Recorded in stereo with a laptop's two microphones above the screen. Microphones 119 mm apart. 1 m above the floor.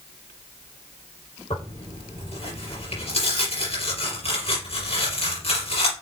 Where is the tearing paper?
65° left (ahead or behind), 4 m.